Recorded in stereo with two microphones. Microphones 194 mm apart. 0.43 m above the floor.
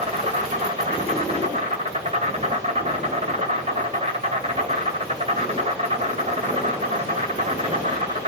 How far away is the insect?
About 1.6 m.